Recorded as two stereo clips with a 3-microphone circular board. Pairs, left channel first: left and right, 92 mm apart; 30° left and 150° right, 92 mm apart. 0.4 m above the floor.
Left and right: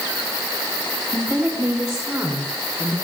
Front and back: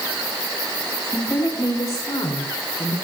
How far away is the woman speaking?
About 4 m.